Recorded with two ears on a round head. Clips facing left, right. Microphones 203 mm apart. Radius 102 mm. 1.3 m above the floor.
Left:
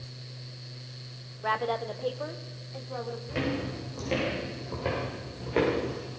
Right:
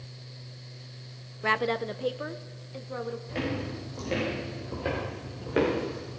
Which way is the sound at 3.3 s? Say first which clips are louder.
Left 3 dB; 5° left (ahead or behind).